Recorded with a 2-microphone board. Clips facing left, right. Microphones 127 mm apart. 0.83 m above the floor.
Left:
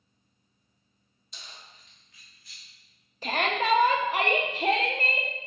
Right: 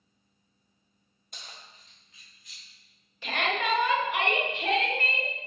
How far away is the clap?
No clap in this recording.